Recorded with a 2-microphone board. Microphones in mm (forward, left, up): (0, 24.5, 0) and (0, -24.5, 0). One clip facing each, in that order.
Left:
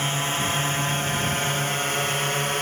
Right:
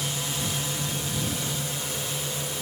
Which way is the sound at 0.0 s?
45° left (ahead or behind).